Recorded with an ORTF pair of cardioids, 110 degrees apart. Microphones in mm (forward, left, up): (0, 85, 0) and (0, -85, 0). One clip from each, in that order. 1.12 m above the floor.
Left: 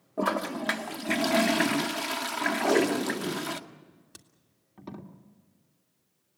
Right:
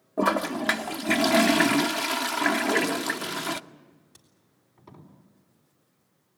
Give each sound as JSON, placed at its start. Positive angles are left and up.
{"t": 0.2, "sound": "a toilet flushing", "azimuth_deg": -20, "distance_m": 0.6}
{"t": 2.6, "sound": "tape being pulled", "azimuth_deg": 50, "distance_m": 2.5}